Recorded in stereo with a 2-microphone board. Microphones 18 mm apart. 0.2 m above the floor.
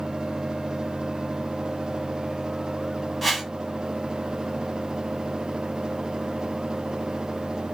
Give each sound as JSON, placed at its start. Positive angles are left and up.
{"t": 3.2, "sound": "a whoosh", "side_deg": 0, "distance_m": 1.0}